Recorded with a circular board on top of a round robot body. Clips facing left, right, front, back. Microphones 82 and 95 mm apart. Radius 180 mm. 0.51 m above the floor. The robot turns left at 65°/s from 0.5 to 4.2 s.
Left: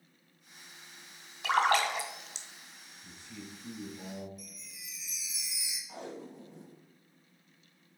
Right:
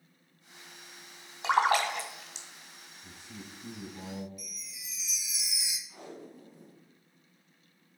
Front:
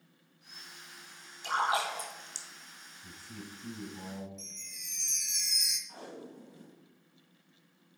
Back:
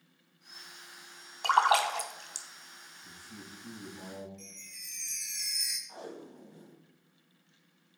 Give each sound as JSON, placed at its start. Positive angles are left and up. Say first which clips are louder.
{"t": 1.4, "sound": "a splash", "louder": "right 1 dB, back 6 dB", "azimuth_deg": -150, "distance_m": 1.1}
{"t": 3.0, "sound": "a man speaking", "louder": "even, front 3 dB", "azimuth_deg": -15, "distance_m": 4.5}
{"t": 4.4, "sound": "a chime", "louder": "right 1 dB, even", "azimuth_deg": -70, "distance_m": 0.6}
{"t": 5.9, "sound": "tape being pulled", "louder": "left 3 dB, back 2 dB", "azimuth_deg": 110, "distance_m": 2.0}